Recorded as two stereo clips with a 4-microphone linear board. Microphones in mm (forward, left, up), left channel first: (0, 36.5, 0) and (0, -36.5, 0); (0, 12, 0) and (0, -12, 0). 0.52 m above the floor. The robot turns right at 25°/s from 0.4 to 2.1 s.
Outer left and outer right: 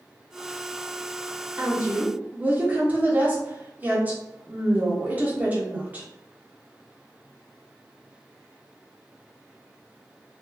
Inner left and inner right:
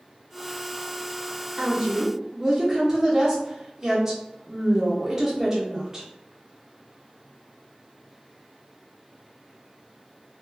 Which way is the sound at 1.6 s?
25° right (ahead or behind).